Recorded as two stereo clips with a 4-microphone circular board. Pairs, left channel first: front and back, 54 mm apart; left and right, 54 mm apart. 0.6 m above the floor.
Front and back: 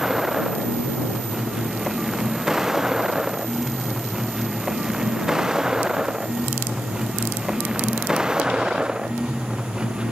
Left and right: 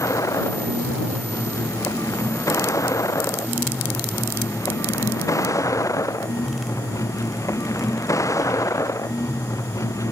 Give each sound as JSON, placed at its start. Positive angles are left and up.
{"t": 0.0, "sound": "a vehicle", "azimuth_deg": 95}